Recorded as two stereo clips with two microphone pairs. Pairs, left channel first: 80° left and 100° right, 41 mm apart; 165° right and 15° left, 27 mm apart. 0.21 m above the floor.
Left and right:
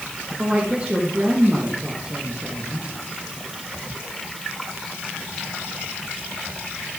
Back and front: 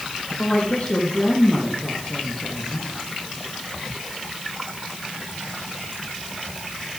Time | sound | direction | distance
0.4 | a woman speaking | 155° right | 4.5 m